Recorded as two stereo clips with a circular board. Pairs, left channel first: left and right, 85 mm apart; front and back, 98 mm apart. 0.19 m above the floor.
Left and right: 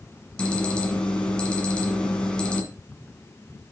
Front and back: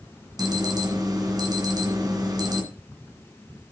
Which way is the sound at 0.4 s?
160° left.